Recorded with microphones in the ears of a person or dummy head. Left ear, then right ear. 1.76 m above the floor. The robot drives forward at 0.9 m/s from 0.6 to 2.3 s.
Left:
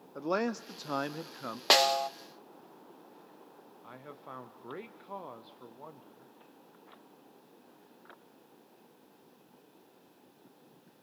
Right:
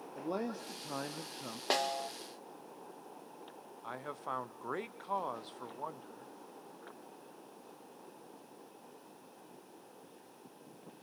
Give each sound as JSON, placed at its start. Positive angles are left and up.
{"t": 0.1, "sound": "a man speaking", "side_deg": 65, "distance_m": 0.7}
{"t": 1.7, "sound": "a snare drum", "side_deg": 45, "distance_m": 0.7}
{"t": 3.8, "sound": "a man speaking", "side_deg": -30, "distance_m": 0.9}